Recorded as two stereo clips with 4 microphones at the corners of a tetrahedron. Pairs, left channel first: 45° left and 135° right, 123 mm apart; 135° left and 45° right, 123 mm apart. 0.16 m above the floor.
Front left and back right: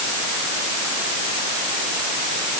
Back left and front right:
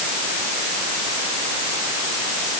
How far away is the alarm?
I don't hear an alarm.